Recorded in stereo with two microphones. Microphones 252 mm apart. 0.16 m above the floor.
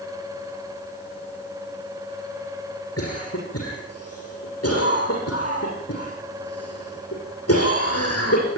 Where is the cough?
75° left (ahead or behind), 6.5 m.